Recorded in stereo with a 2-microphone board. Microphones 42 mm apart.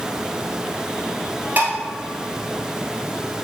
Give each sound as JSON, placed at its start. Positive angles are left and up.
{"t": 1.6, "sound": "dishes clattering", "side_deg": -45, "distance_m": 1.3}